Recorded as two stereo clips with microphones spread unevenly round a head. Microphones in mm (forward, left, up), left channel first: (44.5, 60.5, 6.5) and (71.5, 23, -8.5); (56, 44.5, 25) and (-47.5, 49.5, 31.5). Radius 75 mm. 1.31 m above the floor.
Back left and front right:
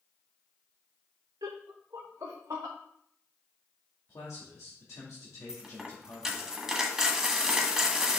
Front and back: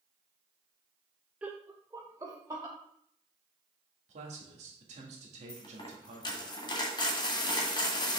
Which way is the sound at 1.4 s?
100° right.